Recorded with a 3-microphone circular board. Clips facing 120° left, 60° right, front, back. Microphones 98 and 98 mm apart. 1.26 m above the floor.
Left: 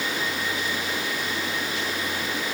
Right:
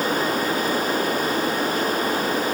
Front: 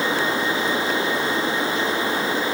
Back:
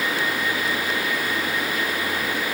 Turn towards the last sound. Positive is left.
No sound to turn to.